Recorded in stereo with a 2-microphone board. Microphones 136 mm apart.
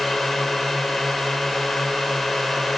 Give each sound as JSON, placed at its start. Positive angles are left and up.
{"t": 0.0, "sound": "a drone", "side_deg": 5}